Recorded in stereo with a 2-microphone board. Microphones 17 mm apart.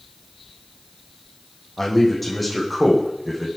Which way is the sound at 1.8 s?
20° left (ahead or behind).